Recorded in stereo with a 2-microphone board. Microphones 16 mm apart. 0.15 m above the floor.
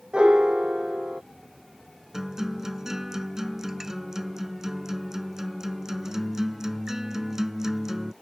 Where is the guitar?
30° right (ahead or behind).